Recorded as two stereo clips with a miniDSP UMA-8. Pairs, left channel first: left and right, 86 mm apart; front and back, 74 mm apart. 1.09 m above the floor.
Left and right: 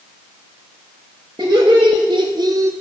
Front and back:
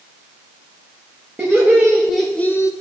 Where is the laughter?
120° right, 1.4 m; by 2.7 s 35° right, 0.6 m.